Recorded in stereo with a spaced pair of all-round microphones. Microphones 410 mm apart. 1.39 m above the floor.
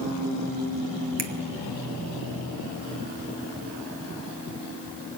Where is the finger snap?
75° right (ahead or behind), 1.1 m.